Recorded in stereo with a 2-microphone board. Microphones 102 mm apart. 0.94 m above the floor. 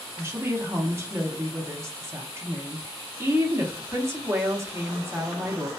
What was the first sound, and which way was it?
A woman speaking, 25° right (ahead or behind).